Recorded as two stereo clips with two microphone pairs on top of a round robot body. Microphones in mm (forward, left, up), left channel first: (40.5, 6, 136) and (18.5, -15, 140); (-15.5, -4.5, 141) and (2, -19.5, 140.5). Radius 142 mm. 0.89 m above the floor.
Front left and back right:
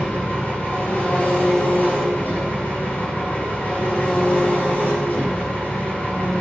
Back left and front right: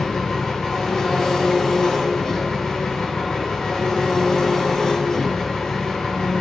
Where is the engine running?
80° left, 7.5 m.